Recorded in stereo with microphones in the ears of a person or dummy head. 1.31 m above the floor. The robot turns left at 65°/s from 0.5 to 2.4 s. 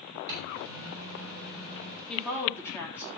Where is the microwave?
60° right, 5 m; by 2.0 s 160° right, 5 m.